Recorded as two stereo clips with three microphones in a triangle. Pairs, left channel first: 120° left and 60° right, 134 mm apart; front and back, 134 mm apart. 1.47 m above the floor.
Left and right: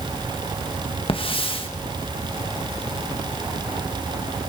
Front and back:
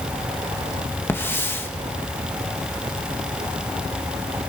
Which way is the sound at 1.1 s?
70° left.